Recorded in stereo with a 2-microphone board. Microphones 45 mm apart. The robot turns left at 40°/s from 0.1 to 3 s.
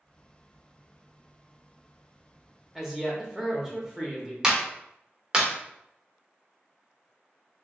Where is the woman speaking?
5° right (ahead or behind), 0.8 m; by 4.3 s 10° right (ahead or behind), 0.8 m.